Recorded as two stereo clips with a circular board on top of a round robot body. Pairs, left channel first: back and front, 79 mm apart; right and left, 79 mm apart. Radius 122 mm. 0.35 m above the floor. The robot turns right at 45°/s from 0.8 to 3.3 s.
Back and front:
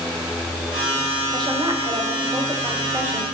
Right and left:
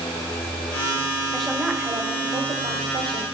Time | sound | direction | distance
1.3 | a woman speaking | 5° right | 1.7 m